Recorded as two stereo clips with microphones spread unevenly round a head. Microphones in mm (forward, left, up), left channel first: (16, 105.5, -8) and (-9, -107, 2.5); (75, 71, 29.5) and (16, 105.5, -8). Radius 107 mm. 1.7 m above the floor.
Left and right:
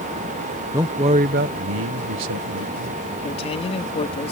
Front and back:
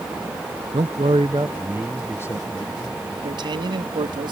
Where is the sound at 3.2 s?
150° left.